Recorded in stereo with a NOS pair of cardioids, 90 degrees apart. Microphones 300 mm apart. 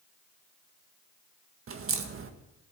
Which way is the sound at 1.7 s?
45° right.